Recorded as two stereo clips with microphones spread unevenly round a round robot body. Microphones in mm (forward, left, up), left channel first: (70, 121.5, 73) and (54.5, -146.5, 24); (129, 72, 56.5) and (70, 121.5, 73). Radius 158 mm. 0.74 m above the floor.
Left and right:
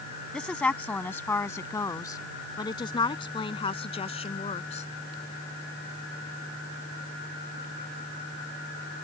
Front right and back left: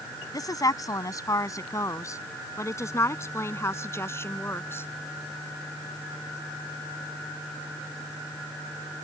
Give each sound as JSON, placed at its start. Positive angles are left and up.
{"t": 0.3, "sound": "a woman speaking", "azimuth_deg": 0}